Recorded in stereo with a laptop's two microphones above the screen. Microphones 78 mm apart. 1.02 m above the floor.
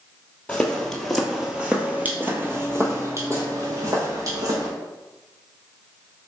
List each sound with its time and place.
0.5 s footsteps: 15° left (ahead or behind), 1.1 m; by 4.7 s 40° right (ahead or behind), 2 m